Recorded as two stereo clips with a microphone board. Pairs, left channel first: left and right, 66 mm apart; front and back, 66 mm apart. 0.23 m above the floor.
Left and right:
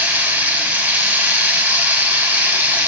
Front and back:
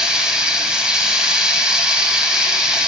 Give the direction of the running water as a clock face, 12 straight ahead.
4 o'clock.